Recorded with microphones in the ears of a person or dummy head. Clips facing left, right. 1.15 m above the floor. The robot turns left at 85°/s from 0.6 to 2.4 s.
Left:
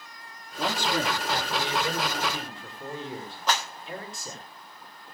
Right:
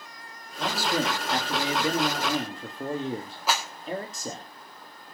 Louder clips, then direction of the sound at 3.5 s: Even; 10° right (ahead or behind).